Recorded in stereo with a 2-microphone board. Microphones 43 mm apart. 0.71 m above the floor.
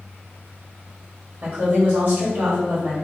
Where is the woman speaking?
40° right (ahead or behind), 1.6 m.